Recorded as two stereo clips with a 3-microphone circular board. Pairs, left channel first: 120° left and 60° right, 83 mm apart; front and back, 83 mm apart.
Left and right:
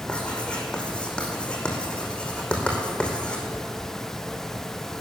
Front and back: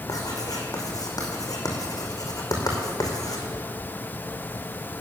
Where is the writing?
40° left, 2.5 m.